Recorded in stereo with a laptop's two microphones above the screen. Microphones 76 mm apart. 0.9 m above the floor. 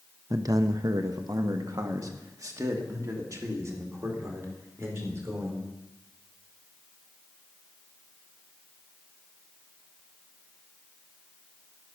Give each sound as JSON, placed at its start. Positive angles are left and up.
{"t": 0.3, "sound": "a man speaking", "side_deg": -40, "distance_m": 0.6}